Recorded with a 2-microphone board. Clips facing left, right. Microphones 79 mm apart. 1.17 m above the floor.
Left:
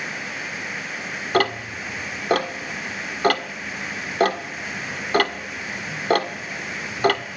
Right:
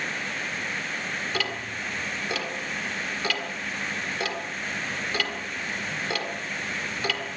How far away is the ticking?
About 1.6 m.